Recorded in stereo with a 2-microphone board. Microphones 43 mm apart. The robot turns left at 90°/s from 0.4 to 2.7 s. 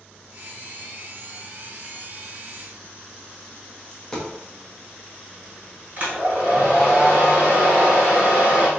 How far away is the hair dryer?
About 1.6 m.